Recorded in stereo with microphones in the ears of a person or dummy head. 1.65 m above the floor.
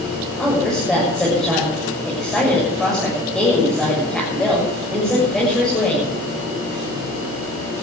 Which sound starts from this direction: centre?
A woman speaking, at 0.4 s.